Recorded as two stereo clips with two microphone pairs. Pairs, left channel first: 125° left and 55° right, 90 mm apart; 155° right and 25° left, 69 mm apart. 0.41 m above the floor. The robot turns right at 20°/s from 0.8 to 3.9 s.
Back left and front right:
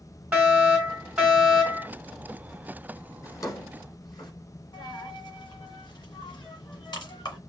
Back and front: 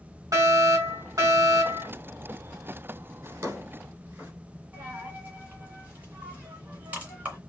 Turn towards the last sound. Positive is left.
turn(degrees=90)